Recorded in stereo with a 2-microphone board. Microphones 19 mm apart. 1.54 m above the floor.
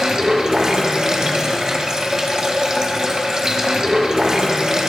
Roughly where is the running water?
Right.